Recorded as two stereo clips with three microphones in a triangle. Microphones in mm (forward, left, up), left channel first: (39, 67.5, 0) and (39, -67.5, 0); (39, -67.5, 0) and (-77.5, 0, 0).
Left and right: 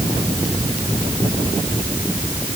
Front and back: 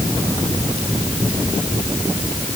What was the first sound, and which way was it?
Only background noise.